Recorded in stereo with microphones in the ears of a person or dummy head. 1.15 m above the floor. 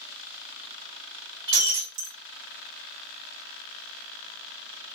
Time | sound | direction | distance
1.5 | breaking glass | 60° right (ahead or behind) | 1.5 m